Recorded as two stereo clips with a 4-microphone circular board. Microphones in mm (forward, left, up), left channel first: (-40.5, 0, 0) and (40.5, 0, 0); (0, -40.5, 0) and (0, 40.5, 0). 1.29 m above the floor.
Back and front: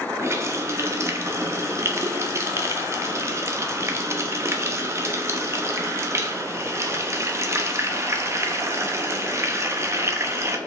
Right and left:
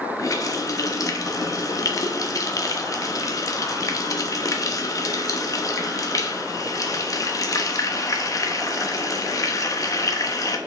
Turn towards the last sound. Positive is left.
turn(degrees=-50)